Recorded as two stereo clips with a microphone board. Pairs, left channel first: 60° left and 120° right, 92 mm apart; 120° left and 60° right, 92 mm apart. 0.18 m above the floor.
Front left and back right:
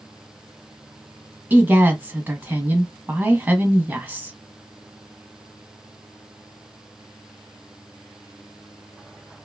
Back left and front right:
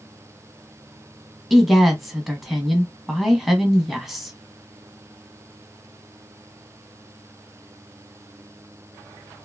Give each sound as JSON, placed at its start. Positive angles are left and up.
{"t": 1.5, "sound": "a woman speaking", "azimuth_deg": -145, "distance_m": 1.0}